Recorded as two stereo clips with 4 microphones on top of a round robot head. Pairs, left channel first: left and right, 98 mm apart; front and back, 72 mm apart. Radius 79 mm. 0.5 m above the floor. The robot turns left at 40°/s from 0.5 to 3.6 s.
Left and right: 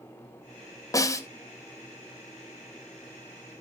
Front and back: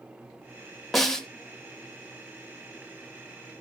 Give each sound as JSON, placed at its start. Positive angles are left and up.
{"t": 0.9, "sound": "a snare drum", "azimuth_deg": 90, "distance_m": 1.2}